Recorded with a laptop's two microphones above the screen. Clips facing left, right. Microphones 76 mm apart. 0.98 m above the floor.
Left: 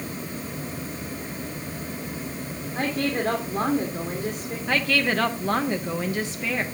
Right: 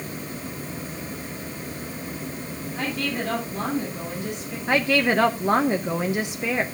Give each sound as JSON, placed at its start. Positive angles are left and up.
{"t": 2.8, "sound": "a woman speaking", "side_deg": 45, "distance_m": 3.0}
{"t": 4.7, "sound": "a woman speaking", "side_deg": -20, "distance_m": 0.6}